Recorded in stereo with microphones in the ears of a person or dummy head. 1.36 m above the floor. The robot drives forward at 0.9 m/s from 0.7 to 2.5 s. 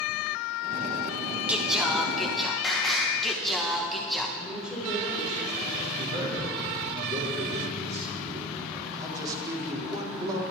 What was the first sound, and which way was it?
Singing, 15° right (ahead or behind).